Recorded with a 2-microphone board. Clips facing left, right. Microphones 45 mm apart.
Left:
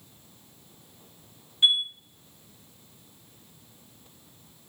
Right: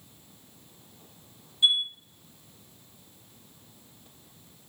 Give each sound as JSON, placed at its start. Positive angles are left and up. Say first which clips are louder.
{"t": 1.6, "sound": "a chime", "louder": "left 1 dB", "side_deg": 40, "distance_m": 1.0}